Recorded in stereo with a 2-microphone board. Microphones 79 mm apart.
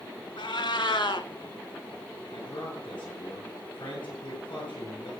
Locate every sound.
0.4 s a cat meowing: 85° left, 0.9 m
2.3 s a man speaking: 80° left, 7.5 m